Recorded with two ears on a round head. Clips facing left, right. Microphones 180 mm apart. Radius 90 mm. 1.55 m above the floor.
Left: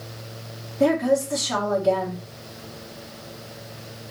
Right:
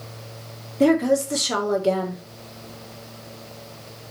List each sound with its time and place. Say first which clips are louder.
0.8 s a woman speaking: right 2 dB; 40° right (ahead or behind), 1.6 m